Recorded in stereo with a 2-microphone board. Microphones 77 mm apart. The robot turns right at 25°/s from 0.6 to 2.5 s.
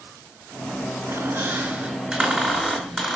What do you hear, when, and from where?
1.1 s a squeak: 45° right, 4.5 m; by 3.2 s 5° right, 4.5 m